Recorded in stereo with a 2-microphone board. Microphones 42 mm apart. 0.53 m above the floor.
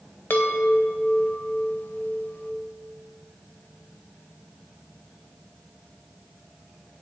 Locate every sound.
0.3 s a chime: 55° left (ahead or behind), 1.0 m